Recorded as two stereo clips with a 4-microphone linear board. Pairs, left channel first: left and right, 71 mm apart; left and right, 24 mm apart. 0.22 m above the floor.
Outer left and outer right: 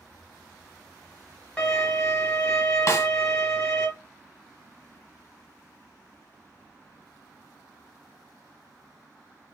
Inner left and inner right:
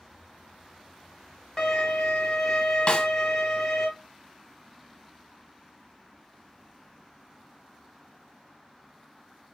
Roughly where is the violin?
Centre.